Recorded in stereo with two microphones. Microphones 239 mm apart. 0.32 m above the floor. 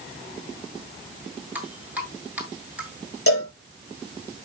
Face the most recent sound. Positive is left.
turn(degrees=75)  # may be behind; listen again after turning